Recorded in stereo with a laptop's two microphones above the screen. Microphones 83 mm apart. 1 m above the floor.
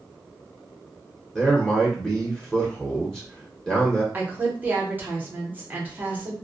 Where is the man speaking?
5° left (ahead or behind), 0.7 m.